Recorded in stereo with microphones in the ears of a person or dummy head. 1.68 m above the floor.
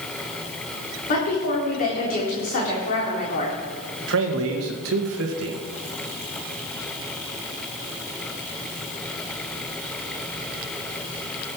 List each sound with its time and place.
1.1 s a woman speaking: 40° left (ahead or behind), 4 m
4.1 s a man speaking: 80° right, 2 m